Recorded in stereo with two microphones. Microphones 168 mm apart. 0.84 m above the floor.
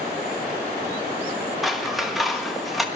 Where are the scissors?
Centre (ahead or behind), 1.1 m.